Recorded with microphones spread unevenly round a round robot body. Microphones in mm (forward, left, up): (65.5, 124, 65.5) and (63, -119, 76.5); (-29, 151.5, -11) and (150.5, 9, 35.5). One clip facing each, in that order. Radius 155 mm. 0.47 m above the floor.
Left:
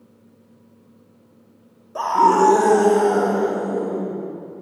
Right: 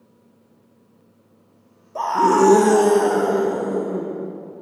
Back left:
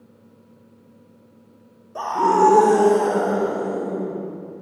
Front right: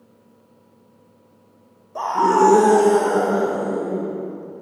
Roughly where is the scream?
Behind left.